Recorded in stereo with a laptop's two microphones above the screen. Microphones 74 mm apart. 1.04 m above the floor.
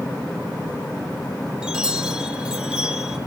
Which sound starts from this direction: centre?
A chime, at 1.6 s.